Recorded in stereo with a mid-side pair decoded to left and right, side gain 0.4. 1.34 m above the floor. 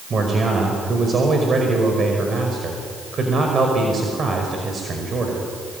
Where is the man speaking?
45° right, 5 m.